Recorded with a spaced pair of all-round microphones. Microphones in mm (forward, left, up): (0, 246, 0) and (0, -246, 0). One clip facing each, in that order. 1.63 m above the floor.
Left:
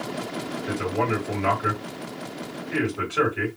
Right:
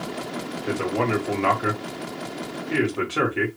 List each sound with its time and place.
0.7 s a man speaking: 75° right (ahead or behind), 1.8 m